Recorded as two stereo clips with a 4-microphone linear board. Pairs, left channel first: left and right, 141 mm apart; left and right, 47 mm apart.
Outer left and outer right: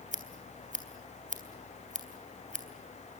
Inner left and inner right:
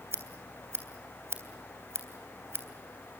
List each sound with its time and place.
0.1 s scissors: 65° right (ahead or behind), 3 m